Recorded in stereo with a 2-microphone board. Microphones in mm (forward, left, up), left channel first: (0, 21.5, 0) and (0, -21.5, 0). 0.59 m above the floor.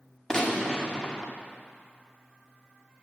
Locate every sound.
0.3 s a gunshot: 15° left (ahead or behind), 1.6 m